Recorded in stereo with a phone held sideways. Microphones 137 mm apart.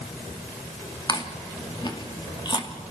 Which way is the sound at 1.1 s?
35° left (ahead or behind).